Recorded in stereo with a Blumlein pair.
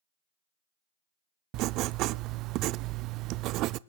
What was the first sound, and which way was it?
Writing, 40° right.